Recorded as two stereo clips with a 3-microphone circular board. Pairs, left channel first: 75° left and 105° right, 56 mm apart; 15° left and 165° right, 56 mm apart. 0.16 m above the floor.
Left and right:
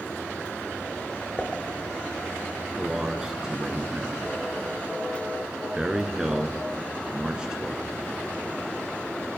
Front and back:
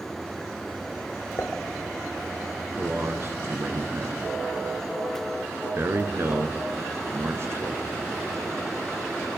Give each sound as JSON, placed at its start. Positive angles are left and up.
{"t": 1.4, "sound": "dishes clattering", "azimuth_deg": 5, "distance_m": 1.4}
{"t": 2.8, "sound": "a man speaking", "azimuth_deg": 180, "distance_m": 2.5}